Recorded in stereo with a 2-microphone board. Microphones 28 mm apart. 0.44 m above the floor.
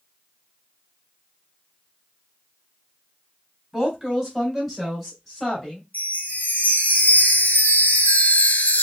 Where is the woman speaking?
10° right (ahead or behind), 2.5 m; by 5.8 s 20° left (ahead or behind), 2.5 m.